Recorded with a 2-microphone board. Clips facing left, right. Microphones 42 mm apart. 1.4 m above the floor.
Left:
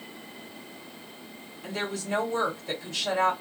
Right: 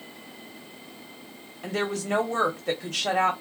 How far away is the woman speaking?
About 1.1 m.